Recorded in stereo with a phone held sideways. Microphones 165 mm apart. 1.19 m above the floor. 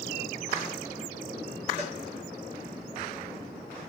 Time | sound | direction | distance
1.8 | a cowbell | 45° right (ahead or behind) | 3 m